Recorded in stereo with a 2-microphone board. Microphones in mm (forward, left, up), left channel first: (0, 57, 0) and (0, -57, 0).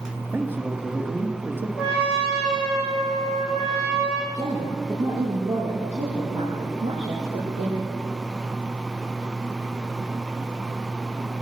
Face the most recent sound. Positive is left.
turn(degrees=-75)  # may be behind; listen again after turning